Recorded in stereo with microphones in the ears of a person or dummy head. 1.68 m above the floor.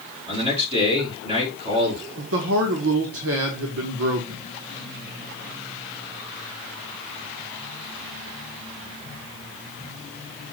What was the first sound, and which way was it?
A man speaking, 30° right (ahead or behind).